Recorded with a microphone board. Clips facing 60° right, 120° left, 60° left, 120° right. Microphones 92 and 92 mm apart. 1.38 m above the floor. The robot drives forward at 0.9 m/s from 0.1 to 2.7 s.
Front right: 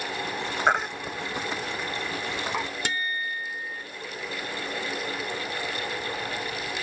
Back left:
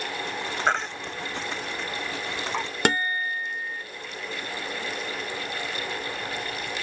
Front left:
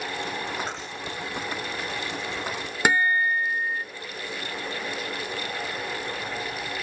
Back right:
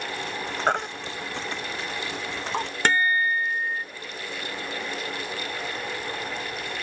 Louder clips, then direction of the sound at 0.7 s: Front right 2 dB, back right 8 dB; 140° right.